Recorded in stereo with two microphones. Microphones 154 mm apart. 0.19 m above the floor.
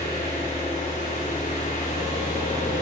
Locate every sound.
0.0 s an engine running: 55° left (ahead or behind), 5.5 m